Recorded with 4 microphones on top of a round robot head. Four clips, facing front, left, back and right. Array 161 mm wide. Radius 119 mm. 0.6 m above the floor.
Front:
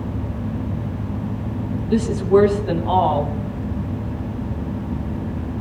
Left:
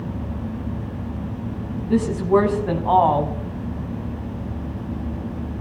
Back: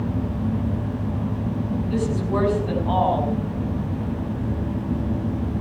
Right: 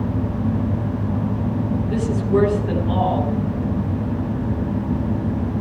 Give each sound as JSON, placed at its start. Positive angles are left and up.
{"t": 1.9, "sound": "a woman speaking", "azimuth_deg": 75, "distance_m": 5.5}